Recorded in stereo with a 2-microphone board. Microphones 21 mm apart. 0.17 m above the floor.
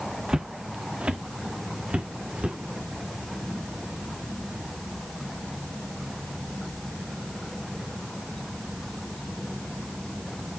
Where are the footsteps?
40° right (ahead or behind), 0.6 m; by 2.6 s 85° right, 2 m.